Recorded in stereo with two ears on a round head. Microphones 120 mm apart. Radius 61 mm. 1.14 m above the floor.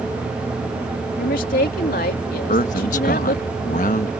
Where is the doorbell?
No doorbell in this recording.